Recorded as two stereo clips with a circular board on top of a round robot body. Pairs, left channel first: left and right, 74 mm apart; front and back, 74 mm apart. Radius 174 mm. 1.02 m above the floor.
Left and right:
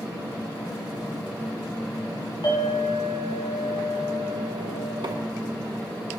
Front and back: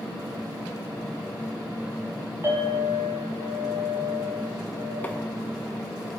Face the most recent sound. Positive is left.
turn(degrees=-70)